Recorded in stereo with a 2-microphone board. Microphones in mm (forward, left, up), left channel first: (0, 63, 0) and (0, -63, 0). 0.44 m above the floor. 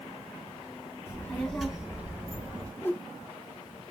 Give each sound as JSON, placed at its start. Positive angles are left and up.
{"t": 1.1, "sound": "a child speaking", "side_deg": 25, "distance_m": 1.1}
{"t": 2.8, "sound": "a whoosh", "side_deg": 20, "distance_m": 0.5}